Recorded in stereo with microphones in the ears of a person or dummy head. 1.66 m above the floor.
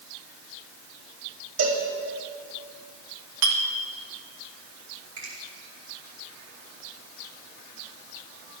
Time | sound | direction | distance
1.6 | a cowbell | 65° right (ahead or behind) | 2 m
3.4 | a clink | 60° right (ahead or behind) | 1.3 m
5.2 | a finger snap | 80° right | 6 m